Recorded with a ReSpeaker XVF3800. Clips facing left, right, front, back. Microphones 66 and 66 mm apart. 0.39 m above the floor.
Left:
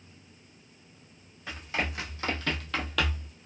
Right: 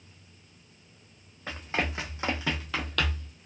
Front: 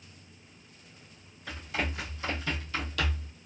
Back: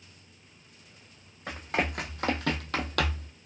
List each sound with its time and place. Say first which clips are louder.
1.5 s running footsteps: right 2 dB, back 4 dB; 145° right, 1.4 m; by 3.3 s 155° left, 0.7 m